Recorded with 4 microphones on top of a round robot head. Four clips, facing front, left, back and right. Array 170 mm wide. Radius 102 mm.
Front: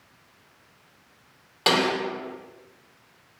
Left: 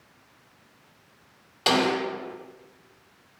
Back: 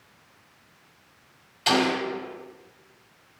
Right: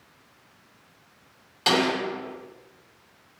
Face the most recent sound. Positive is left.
turn(degrees=15)